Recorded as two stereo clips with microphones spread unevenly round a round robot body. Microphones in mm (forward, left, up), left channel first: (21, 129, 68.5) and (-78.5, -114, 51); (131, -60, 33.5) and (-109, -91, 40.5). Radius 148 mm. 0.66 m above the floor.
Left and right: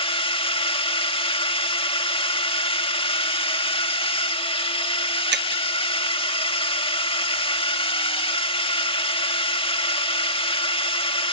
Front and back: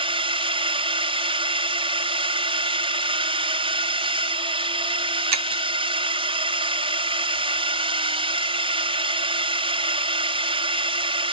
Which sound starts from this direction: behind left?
A drone, at 0.0 s.